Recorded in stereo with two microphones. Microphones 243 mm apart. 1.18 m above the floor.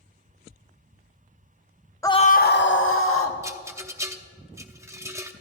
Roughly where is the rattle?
Centre.